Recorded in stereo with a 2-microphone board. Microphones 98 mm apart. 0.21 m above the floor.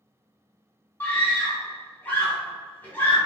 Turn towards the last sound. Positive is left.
turn(degrees=20)  # may be behind; listen again after turning